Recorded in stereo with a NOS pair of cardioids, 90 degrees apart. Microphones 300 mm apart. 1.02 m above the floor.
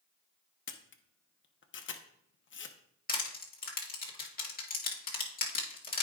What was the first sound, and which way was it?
A camera shutter, 40° left.